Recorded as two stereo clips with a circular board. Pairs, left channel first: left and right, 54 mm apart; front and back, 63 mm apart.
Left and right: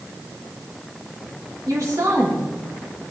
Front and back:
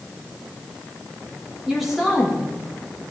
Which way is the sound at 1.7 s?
90° right.